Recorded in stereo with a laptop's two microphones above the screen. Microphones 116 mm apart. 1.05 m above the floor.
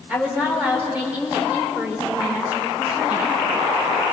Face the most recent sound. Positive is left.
turn(degrees=-15)  # may be behind; listen again after turning